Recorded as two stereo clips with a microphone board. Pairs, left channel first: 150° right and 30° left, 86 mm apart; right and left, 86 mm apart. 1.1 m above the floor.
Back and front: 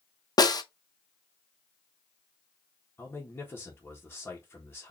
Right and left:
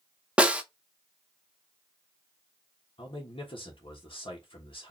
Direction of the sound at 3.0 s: 85° right.